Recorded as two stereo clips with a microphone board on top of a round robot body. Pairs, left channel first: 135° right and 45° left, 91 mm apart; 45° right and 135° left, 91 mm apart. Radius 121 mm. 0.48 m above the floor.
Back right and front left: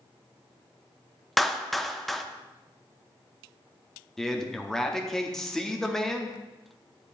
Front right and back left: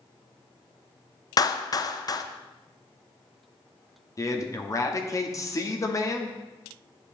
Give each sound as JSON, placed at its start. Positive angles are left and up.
{"t": 1.4, "sound": "a clap", "azimuth_deg": -45, "distance_m": 0.6}
{"t": 4.2, "sound": "a man speaking", "azimuth_deg": -50, "distance_m": 1.1}